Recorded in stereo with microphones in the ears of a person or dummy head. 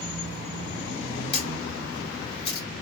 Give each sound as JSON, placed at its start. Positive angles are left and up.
{"t": 1.3, "sound": "a camera shutter", "side_deg": 35, "distance_m": 2.0}